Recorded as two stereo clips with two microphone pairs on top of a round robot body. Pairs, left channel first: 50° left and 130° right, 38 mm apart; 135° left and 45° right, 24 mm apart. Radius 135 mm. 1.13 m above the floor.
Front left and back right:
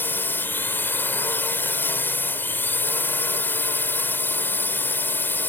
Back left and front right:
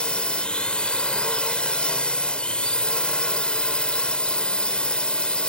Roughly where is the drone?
Left.